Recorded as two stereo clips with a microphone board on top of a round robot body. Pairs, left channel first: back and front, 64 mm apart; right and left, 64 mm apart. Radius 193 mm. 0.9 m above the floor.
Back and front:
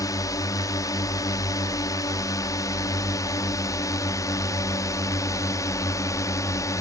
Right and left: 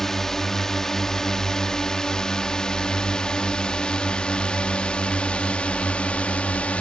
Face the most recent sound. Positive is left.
turn(degrees=-160)